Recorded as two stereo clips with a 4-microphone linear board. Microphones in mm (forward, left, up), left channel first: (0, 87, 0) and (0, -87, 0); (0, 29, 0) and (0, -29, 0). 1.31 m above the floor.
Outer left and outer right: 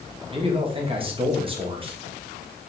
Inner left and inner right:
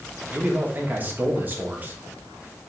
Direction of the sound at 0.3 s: 30° right (ahead or behind).